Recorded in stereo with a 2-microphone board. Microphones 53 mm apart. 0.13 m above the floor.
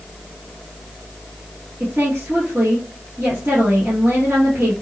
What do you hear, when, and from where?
1.8 s a woman speaking: 35° right (ahead or behind), 2.5 m